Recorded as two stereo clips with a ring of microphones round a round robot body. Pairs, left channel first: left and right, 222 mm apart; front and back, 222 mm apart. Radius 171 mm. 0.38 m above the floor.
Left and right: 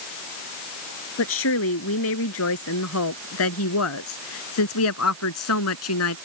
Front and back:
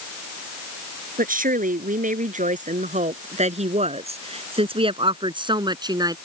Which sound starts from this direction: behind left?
A woman speaking, at 1.2 s.